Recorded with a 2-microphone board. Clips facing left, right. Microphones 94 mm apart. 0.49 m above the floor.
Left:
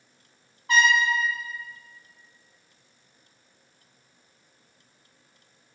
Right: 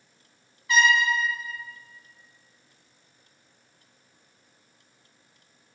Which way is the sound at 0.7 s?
50° left (ahead or behind).